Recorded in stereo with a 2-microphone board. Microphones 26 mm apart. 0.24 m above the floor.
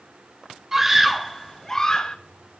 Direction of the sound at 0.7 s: 20° right (ahead or behind).